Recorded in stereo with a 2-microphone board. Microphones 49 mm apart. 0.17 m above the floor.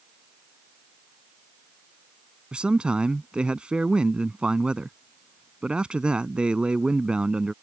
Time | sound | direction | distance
2.5 | a man speaking | 20° right (ahead or behind) | ?